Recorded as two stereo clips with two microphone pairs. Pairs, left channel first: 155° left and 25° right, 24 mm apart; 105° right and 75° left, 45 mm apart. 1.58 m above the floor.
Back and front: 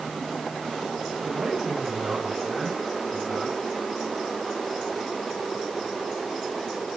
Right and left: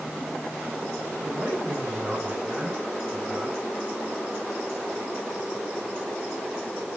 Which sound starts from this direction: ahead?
A man speaking, at 1.2 s.